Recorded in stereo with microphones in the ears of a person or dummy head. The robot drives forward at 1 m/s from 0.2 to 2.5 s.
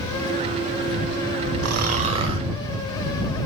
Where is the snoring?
65° right (ahead or behind), 0.6 m; by 2.4 s 25° right (ahead or behind), 1.2 m.